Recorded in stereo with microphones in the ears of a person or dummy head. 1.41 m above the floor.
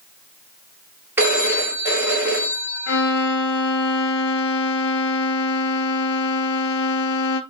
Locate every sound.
1.2 s a phone ringing: centre (ahead or behind), 1.4 m
2.9 s a violin: 70° left (ahead or behind), 0.6 m